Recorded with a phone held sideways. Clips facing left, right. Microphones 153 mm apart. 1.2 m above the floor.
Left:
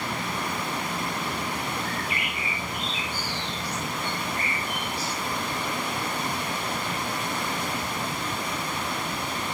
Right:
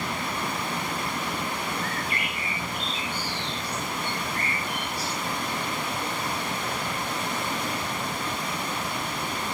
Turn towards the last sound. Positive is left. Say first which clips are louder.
# even
turn(degrees=20)  # may be behind; listen again after turning